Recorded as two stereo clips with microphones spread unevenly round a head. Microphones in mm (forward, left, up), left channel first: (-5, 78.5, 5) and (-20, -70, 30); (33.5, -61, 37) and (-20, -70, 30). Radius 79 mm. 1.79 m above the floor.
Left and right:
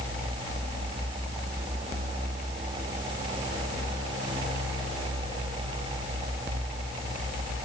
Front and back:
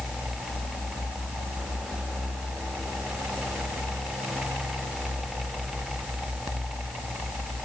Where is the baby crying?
I don't hear a baby crying.